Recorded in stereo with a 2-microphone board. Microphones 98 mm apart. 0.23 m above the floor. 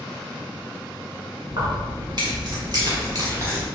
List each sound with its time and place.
1.5 s keys jangling: 55° right (ahead or behind), 1.9 m; by 3.7 s 25° right (ahead or behind), 1.2 m